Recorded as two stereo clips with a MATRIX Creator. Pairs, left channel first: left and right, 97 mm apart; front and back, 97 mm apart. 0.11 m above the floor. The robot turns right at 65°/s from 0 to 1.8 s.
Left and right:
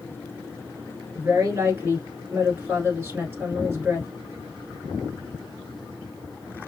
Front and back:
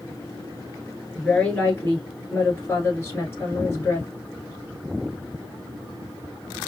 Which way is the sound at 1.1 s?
85° right.